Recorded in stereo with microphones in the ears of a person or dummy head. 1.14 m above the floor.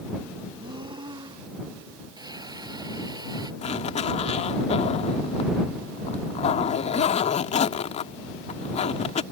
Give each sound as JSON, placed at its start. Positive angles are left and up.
{"t": 0.6, "sound": "breathing", "side_deg": -20}
{"t": 2.2, "sound": "a hiss", "side_deg": -20}
{"t": 3.6, "sound": "a zipper", "side_deg": 35}